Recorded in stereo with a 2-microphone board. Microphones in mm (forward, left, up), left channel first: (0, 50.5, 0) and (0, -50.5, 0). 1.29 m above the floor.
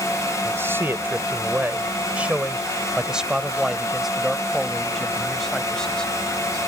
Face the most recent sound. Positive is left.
turn(degrees=10)  # may be behind; listen again after turning